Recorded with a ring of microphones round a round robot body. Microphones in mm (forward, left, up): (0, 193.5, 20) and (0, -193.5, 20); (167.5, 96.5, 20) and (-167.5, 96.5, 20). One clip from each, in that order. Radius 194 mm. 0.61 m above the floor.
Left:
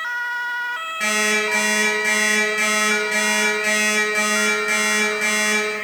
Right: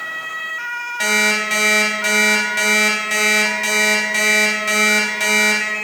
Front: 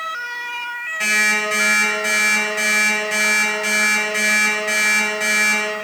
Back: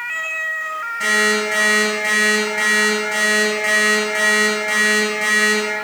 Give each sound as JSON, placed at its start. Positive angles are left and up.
{"t": 1.0, "sound": "an alarm clock", "azimuth_deg": -70, "distance_m": 2.5}